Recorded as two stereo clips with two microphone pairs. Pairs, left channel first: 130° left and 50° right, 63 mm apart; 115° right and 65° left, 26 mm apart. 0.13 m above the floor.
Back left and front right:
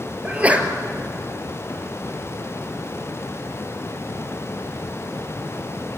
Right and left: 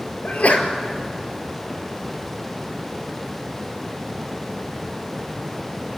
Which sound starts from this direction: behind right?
A sneeze, at 0.2 s.